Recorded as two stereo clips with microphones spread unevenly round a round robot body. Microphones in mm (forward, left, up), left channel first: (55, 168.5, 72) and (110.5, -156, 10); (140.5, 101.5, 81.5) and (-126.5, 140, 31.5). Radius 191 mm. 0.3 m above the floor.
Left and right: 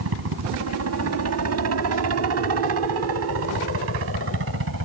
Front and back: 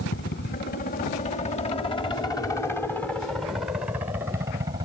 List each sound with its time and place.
0.0 s a helicopter: 60° right; by 4.8 s 120° right